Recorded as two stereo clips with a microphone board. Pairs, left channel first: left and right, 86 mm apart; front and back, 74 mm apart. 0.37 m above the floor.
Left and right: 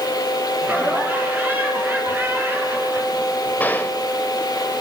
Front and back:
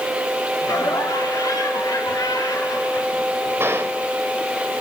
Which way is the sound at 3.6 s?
145° left.